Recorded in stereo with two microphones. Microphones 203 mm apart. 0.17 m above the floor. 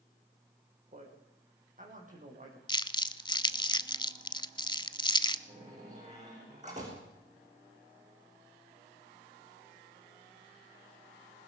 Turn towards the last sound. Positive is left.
turn(degrees=-35)  # may be behind; listen again after turning